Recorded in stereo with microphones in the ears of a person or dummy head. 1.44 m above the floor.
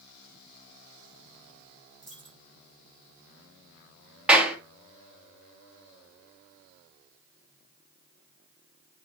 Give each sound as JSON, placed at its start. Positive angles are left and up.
{"t": 2.0, "sound": "a dropped coin", "side_deg": 5, "distance_m": 5.5}
{"t": 4.3, "sound": "a clap", "side_deg": -5, "distance_m": 1.8}